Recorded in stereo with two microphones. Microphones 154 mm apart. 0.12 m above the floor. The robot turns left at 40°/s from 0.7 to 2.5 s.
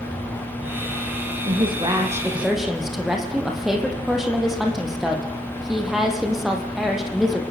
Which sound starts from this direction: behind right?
A woman speaking, at 1.4 s.